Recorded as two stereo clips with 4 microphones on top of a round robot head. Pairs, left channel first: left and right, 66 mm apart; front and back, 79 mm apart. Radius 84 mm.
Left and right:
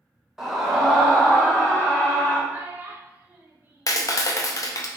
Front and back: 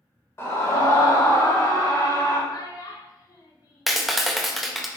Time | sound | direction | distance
0.4 | a scream | 10° right | 1.2 m
2.5 | a child speaking | 30° right | 0.7 m
3.9 | a clap | 90° left | 0.5 m